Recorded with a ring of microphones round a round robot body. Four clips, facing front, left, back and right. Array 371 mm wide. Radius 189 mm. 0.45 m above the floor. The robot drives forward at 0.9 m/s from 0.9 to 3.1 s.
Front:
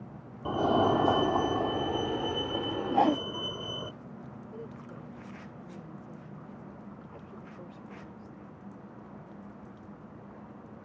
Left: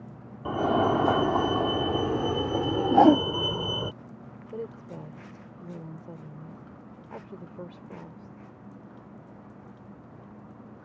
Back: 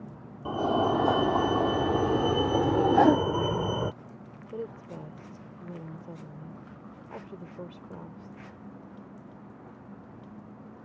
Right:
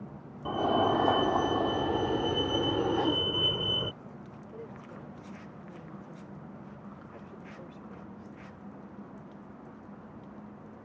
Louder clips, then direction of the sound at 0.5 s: Left 3 dB, even; 80° left.